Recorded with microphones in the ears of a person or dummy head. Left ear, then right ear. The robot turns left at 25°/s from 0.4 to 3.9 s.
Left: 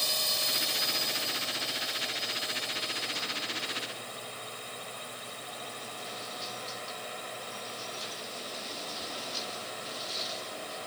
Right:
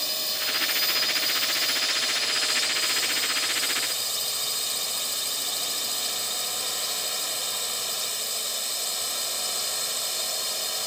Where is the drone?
10° right; by 10.9 s 100° right.